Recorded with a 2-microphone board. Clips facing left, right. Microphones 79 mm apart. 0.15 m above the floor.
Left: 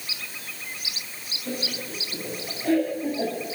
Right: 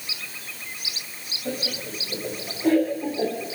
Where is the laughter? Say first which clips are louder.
Right 2 dB; 40° right (ahead or behind), 5 m; by 3.5 s 25° right (ahead or behind), 4.5 m.